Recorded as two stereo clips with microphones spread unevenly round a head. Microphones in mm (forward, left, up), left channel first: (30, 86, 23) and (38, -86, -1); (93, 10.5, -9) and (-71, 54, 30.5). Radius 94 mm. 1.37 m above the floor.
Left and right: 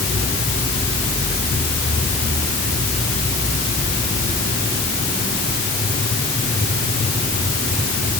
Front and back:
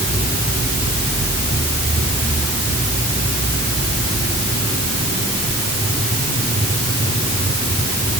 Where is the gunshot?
I don't hear a gunshot.